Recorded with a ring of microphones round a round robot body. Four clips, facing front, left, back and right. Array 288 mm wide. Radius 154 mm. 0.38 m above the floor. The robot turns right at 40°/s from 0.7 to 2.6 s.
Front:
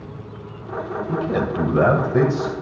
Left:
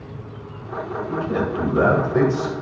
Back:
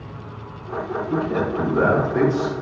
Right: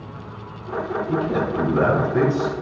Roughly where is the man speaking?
Ahead.